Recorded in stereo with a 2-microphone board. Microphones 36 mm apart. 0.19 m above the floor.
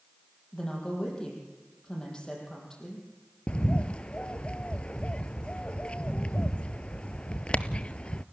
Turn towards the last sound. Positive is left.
turn(degrees=30)  # may be behind; listen again after turning